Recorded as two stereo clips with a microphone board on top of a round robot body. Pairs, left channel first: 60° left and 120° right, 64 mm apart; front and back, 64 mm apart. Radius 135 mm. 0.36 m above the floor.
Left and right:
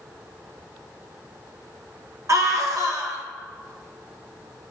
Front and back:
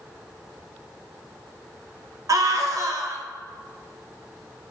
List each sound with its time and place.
2.3 s a scream: 150° right, 1.8 m